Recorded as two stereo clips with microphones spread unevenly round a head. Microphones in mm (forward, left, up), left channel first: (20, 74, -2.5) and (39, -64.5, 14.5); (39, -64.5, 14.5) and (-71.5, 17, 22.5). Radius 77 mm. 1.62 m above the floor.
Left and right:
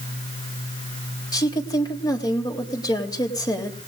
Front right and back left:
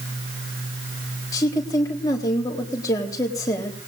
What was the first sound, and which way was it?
A woman speaking, 35° left.